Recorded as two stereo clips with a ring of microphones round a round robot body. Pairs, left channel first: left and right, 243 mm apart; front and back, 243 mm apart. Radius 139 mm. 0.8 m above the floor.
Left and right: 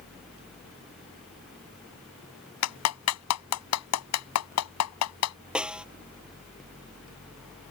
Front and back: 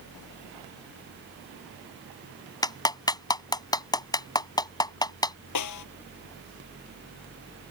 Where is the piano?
I don't hear a piano.